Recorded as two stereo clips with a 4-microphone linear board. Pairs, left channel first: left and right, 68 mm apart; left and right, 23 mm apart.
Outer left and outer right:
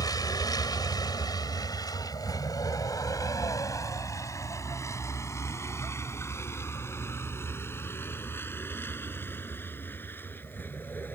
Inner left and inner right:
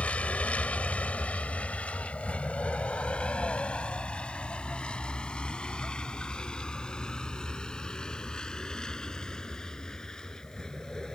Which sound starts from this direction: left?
A vehicle, at 0.0 s.